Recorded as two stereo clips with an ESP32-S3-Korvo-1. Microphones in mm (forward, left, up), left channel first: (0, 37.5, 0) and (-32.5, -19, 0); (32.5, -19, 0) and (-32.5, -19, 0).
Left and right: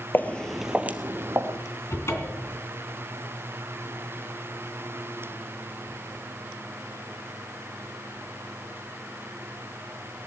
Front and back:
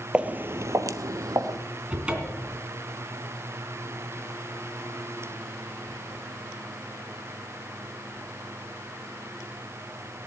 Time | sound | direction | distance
0.1 | footsteps | 110° left | 0.9 m
1.9 | a cupboard door | 105° left | 2.5 m